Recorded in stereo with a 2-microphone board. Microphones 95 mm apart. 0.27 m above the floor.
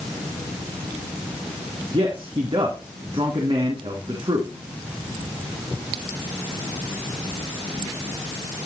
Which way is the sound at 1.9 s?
65° right (ahead or behind).